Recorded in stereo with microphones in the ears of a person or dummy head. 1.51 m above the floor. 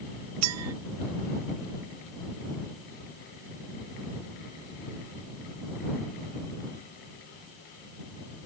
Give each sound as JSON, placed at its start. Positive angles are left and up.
{"t": 0.4, "sound": "a clink", "side_deg": -75}